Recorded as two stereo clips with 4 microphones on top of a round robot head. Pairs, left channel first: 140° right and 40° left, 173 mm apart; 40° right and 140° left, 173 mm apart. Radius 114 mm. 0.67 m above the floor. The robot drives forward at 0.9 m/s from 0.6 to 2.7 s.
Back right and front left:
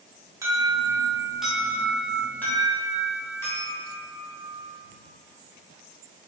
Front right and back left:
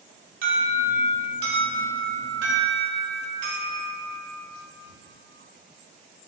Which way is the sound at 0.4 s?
110° left.